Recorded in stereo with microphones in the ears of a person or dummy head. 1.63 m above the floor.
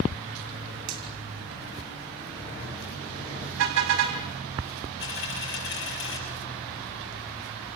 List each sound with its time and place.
0.9 s a finger snap: 75° right (ahead or behind), 4 m
3.6 s a car horn: 75° right (ahead or behind), 4.5 m
5.0 s a dropped coin: 65° left (ahead or behind), 7.5 m